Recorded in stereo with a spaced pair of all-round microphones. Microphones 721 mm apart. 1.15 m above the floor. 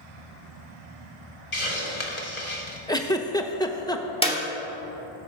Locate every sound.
1.5 s a hiss: 60° left (ahead or behind), 2.0 m
2.9 s a giggle: 5° left (ahead or behind), 0.7 m
4.2 s a clap: 10° left (ahead or behind), 2.0 m